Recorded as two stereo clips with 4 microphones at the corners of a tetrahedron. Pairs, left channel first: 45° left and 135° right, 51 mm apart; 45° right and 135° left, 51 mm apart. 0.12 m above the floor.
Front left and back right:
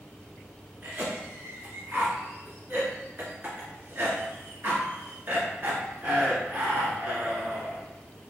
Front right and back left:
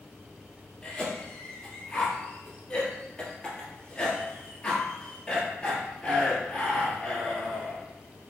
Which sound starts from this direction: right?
A cough, at 0.8 s.